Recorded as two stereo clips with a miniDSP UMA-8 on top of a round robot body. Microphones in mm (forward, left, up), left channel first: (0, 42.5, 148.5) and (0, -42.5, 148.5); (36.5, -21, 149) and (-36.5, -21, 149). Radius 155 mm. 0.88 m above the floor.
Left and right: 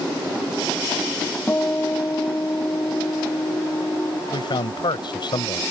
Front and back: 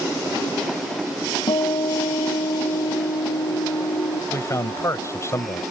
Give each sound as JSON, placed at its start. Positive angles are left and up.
{"t": 1.5, "sound": "a guitar", "azimuth_deg": 20}
{"t": 4.3, "sound": "a man speaking", "azimuth_deg": 55}